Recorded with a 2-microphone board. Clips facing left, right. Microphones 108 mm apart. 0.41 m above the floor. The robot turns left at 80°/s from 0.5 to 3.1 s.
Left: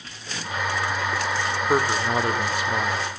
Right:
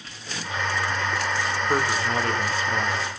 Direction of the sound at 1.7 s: 20° left (ahead or behind).